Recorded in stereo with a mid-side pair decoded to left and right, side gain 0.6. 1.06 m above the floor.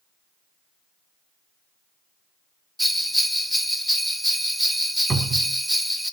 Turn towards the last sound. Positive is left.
turn(degrees=-30)